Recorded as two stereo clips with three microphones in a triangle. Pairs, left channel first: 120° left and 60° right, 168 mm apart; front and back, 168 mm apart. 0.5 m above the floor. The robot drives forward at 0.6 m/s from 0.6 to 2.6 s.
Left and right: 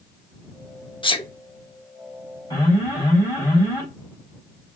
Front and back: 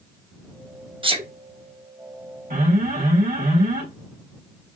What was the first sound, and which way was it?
A sneeze, 150° left.